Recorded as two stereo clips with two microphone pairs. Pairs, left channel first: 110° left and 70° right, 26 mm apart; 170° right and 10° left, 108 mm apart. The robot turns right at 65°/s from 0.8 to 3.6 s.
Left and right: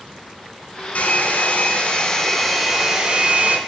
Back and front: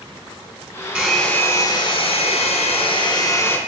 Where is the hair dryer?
95° left, 3.5 m; by 3.6 s 95° right, 3.5 m.